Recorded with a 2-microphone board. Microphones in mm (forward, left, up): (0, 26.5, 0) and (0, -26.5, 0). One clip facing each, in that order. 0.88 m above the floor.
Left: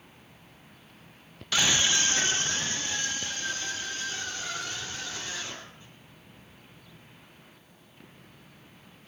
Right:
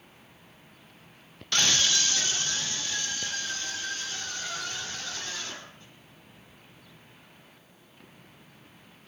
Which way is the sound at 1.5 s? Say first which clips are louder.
Left 1 dB; 5° left (ahead or behind).